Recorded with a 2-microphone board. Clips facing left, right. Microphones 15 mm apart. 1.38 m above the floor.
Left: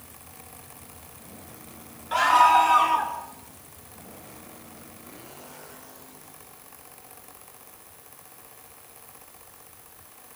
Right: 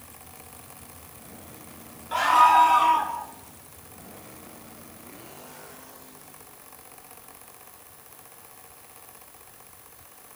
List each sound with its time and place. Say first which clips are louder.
2.1 s a scream: even; 20° left (ahead or behind), 3 m